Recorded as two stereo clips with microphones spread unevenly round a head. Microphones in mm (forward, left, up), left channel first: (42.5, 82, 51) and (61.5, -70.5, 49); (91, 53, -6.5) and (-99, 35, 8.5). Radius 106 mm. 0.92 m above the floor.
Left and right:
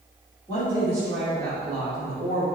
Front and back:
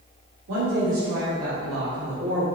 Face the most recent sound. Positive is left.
turn(degrees=-145)